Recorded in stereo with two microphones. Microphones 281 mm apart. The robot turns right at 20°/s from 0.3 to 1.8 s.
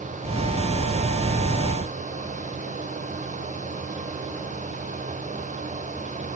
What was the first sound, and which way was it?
Only background noise.